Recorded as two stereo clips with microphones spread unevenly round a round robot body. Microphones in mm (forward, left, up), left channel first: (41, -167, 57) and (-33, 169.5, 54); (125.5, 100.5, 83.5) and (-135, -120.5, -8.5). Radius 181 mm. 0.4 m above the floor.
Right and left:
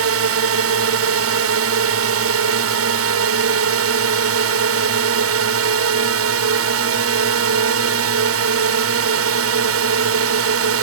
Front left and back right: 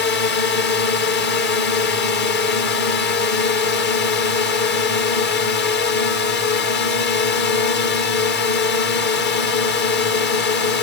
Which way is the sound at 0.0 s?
105° left.